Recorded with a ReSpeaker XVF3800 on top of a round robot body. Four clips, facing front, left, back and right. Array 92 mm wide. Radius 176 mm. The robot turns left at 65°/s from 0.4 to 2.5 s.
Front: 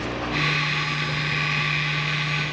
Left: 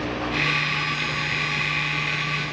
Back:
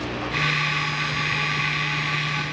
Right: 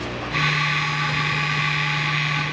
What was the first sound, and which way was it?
Only background noise.